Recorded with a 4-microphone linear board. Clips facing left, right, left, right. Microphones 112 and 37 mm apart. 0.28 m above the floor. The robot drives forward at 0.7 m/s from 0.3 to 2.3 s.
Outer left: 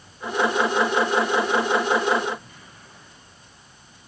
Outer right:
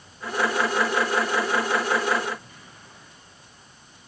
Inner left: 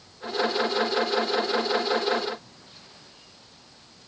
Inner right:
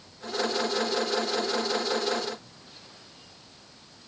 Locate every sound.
Only background noise.